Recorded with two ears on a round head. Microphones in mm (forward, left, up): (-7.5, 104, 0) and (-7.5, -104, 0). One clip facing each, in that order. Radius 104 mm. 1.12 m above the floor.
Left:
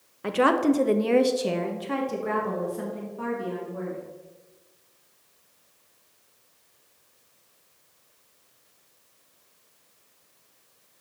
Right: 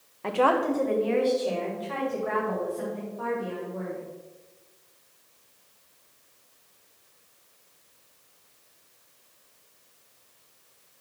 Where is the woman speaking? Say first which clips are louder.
Left 3 dB; 15° left (ahead or behind), 0.6 m; by 4.0 s 45° left (ahead or behind), 2 m.